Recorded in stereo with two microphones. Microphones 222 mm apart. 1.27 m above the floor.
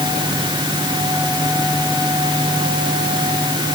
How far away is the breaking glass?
No breaking glass in this recording.